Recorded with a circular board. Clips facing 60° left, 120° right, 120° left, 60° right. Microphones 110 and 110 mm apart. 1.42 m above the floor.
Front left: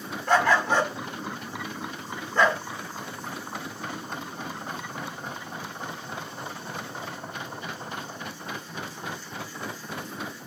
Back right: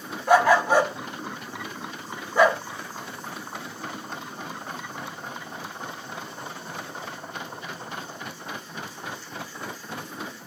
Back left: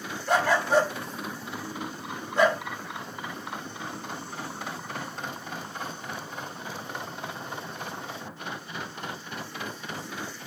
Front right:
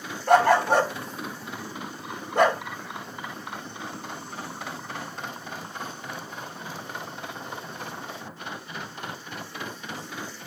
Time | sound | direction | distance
0.3 | a dog barking | 40° right | 1.9 m